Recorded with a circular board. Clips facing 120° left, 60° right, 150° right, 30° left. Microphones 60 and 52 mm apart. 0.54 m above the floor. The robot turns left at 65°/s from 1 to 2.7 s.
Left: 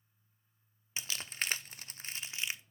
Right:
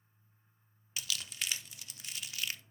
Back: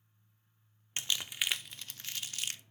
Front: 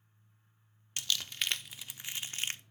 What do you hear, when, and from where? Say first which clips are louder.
1.0 s crumpling: left 2 dB, even; 160° left, 0.6 m; by 2.6 s 55° left, 0.6 m